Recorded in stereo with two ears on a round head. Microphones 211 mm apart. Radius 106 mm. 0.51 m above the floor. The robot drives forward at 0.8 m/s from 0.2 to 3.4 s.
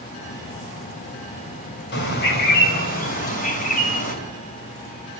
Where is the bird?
45° left (ahead or behind), 3 m; by 4.2 s 35° left (ahead or behind), 3.5 m.